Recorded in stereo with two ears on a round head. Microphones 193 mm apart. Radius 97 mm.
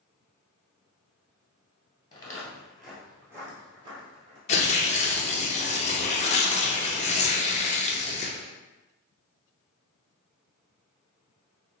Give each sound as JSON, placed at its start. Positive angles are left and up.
{"t": 2.1, "sound": "footsteps", "side_deg": 20, "distance_m": 1.5}
{"t": 4.5, "sound": "tearing paper", "side_deg": 30, "distance_m": 0.8}